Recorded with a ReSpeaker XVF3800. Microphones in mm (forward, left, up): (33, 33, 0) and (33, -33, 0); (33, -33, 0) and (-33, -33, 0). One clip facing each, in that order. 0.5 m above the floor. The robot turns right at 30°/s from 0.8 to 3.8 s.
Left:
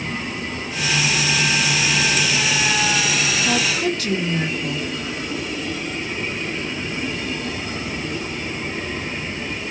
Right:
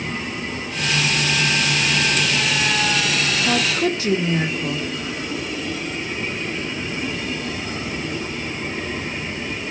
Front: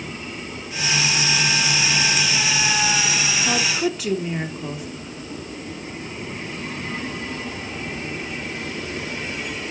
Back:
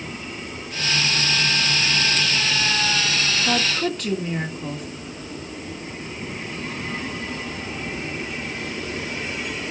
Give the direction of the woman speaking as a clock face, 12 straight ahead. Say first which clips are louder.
Right 2 dB, even; 3 o'clock.